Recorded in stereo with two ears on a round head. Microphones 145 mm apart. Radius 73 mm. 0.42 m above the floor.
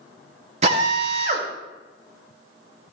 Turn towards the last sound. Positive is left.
turn(degrees=-45)  # may be behind; listen again after turning